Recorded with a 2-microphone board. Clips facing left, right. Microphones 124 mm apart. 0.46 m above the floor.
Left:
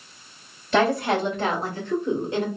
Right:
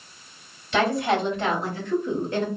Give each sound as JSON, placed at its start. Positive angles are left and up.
{"t": 0.7, "sound": "a woman speaking", "side_deg": 45, "distance_m": 2.0}